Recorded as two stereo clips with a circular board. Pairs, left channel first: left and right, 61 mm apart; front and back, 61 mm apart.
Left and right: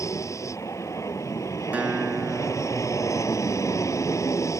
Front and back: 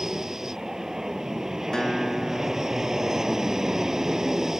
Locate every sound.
0.0 s an aircraft: 100° left
1.7 s a guitar: 65° right